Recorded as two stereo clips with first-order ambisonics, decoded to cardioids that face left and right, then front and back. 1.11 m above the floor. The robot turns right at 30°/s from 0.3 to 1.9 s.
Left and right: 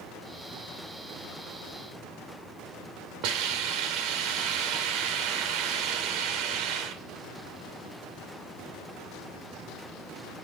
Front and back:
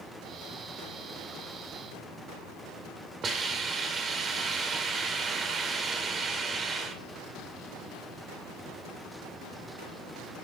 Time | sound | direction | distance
3.2 | a hiss | 115° right | 2.5 m